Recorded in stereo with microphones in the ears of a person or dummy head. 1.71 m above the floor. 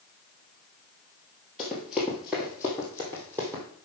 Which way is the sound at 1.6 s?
5° right (ahead or behind).